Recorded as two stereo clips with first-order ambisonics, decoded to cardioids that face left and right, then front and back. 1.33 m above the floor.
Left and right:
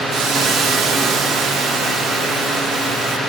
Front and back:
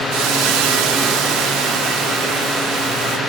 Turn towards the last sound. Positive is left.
turn(degrees=-155)